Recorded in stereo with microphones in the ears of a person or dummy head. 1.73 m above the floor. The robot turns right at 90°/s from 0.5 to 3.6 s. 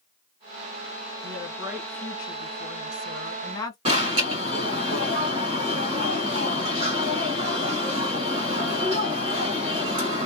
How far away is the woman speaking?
About 1.9 m.